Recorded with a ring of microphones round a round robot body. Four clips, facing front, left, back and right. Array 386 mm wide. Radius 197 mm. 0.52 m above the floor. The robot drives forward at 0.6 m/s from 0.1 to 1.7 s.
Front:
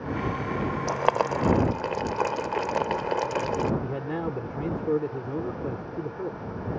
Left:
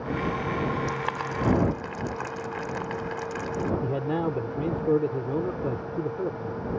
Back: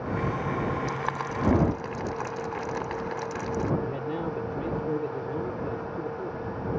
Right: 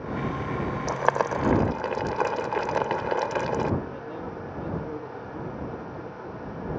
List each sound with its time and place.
0.9 s boiling: 45° right; by 3.7 s 55° right
3.8 s a man speaking: 75° left